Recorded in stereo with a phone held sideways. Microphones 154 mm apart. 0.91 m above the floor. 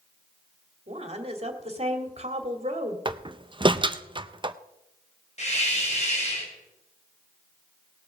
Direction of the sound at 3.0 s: 30° right (ahead or behind).